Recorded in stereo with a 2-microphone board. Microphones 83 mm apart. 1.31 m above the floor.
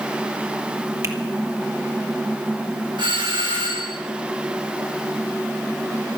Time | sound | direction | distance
1.0 | a finger snap | 40° right (ahead or behind) | 1.8 m
3.0 | a doorbell | 80° right | 5.5 m